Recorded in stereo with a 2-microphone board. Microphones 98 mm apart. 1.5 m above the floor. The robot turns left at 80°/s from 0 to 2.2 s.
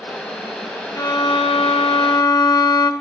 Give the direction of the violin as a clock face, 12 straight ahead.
7 o'clock.